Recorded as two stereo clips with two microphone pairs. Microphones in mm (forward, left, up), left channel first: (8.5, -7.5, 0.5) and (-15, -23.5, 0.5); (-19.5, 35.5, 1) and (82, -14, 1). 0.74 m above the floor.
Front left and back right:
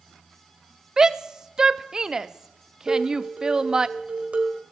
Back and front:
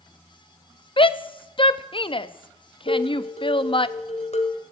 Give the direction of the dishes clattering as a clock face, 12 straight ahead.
6 o'clock.